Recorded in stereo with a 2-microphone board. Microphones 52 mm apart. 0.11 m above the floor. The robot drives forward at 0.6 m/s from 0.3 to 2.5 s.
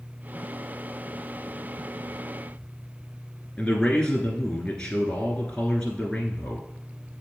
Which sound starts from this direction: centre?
A man speaking, at 3.6 s.